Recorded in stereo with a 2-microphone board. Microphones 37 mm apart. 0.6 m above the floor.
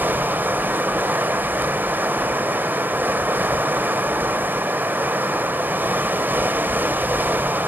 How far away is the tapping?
No tapping in this recording.